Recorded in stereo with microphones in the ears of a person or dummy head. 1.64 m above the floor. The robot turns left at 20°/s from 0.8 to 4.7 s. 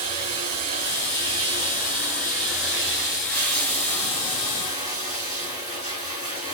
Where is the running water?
130° right, 2.5 m; by 6.5 s 150° left, 2.5 m.